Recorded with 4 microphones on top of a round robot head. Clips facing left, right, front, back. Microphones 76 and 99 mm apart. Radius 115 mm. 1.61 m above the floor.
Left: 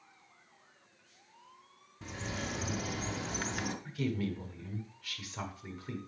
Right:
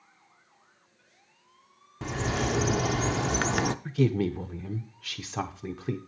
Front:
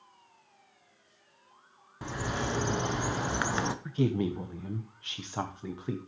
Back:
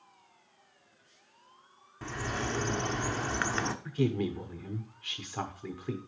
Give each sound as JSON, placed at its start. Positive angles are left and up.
{"t": 2.0, "sound": "a bird", "azimuth_deg": -80, "distance_m": 0.5}
{"t": 3.9, "sound": "a woman speaking", "azimuth_deg": -75, "distance_m": 0.6}